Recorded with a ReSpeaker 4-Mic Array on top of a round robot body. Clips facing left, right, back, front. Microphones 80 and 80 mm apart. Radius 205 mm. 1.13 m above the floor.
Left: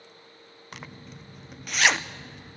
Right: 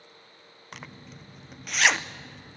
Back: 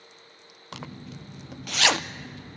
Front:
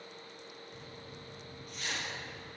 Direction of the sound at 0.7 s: Straight behind.